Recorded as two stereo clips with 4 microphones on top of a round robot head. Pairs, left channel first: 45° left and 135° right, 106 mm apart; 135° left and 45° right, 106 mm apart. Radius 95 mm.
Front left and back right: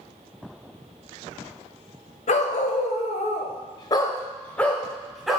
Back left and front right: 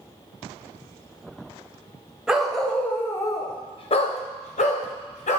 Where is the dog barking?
40° left, 0.9 m; by 5.4 s 140° left, 1.2 m.